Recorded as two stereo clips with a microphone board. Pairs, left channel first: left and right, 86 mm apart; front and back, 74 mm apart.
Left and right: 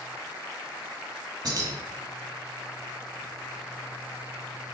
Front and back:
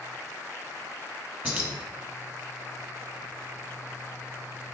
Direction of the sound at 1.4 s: 120° right.